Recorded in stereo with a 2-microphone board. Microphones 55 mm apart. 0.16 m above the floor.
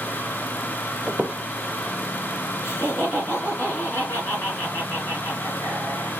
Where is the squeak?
20° right (ahead or behind), 0.6 m.